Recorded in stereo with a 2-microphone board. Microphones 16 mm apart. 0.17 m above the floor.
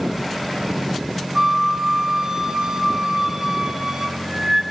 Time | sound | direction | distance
1.4 | a flute | 40° right (ahead or behind) | 2 m